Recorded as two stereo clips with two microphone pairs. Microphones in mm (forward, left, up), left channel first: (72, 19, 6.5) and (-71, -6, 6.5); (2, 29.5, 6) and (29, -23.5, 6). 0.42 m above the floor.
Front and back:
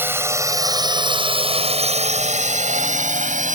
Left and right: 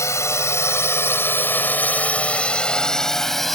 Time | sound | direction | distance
0.0 | a drone | 120° left | ?